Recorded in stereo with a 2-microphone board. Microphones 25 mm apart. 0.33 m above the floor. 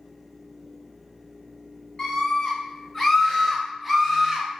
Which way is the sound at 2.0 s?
25° left (ahead or behind).